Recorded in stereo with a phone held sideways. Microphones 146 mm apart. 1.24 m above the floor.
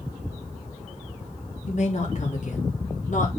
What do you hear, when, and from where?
1.7 s a woman speaking: 55° left (ahead or behind), 3 m; by 3.3 s 65° left (ahead or behind), 3.5 m